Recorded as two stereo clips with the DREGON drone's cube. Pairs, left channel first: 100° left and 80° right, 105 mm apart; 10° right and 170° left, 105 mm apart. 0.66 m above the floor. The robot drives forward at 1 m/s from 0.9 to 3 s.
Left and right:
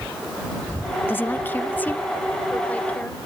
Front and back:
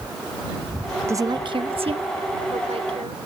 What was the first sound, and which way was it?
A woman speaking, 135° left.